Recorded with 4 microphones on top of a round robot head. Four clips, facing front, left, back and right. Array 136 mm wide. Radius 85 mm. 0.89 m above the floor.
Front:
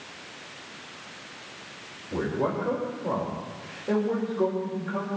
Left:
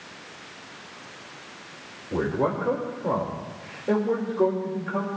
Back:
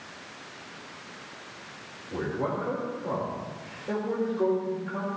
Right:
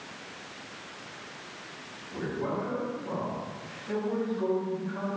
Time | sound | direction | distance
2.1 | a man speaking | 75° left | 3.5 m